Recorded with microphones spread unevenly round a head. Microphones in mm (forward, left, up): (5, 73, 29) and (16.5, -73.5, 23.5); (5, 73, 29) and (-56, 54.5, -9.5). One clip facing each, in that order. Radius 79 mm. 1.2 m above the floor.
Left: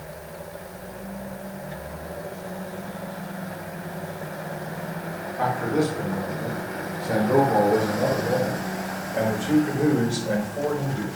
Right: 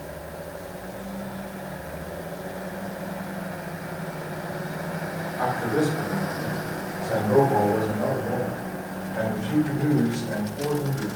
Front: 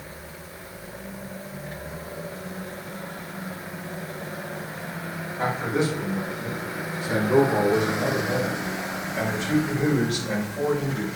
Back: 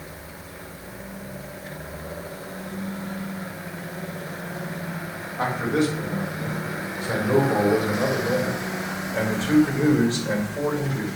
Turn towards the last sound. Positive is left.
turn(degrees=135)